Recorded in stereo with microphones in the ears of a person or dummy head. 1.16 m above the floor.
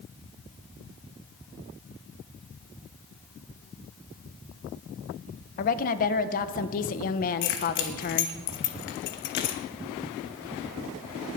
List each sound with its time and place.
5.6 s a woman speaking: 45° left (ahead or behind), 0.8 m
7.4 s keys jangling: 55° left (ahead or behind), 1.2 m